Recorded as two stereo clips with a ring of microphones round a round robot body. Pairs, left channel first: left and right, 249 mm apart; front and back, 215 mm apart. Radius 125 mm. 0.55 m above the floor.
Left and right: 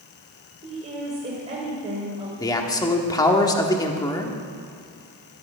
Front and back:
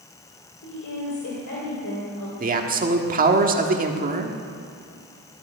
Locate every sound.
0.6 s a woman speaking: 30° right, 2.5 m
2.4 s a man speaking: 160° left, 1.4 m